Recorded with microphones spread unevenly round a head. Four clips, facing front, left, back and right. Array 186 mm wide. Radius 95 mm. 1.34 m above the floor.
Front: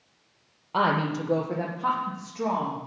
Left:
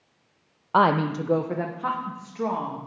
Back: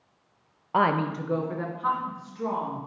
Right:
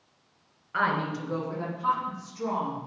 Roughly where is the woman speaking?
Left.